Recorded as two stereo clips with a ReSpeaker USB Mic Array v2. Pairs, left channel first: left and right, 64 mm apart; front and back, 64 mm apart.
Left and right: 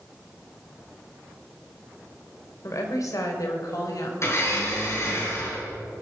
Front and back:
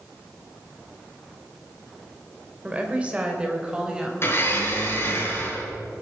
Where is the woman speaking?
115° left, 3 m; by 4.1 s 105° left, 4 m.